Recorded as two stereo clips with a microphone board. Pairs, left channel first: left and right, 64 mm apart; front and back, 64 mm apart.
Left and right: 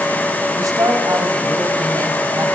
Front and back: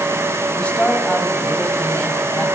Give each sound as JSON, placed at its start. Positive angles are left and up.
{"t": 0.6, "sound": "a woman speaking", "azimuth_deg": -70, "distance_m": 4.0}